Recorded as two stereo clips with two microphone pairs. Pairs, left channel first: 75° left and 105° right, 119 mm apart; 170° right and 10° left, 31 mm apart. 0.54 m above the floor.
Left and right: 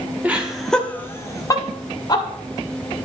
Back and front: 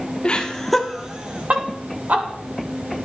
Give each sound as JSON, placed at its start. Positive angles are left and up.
{"t": 0.2, "sound": "laughter", "azimuth_deg": -170, "distance_m": 1.5}